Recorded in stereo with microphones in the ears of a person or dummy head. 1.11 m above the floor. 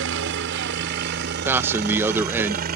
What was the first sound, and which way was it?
A helicopter, 65° right (ahead or behind).